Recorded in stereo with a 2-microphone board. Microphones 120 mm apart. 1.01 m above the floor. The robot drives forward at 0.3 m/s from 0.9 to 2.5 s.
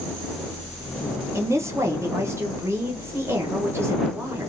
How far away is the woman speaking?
About 0.7 m.